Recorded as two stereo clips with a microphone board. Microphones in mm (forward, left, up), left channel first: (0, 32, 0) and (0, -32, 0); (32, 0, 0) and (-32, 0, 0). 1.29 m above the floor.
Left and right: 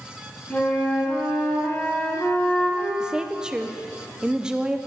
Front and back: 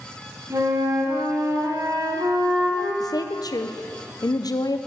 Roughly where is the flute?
Behind left.